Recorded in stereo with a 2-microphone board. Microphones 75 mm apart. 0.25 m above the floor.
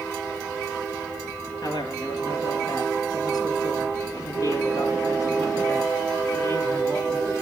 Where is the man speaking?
75° left (ahead or behind), 3.5 m; by 7.4 s 40° left (ahead or behind), 4.5 m.